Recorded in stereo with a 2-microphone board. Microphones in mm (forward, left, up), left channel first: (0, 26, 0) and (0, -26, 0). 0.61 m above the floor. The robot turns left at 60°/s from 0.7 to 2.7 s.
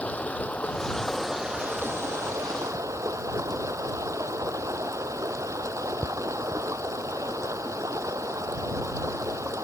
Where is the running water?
25° left; by 9.6 s 95° right.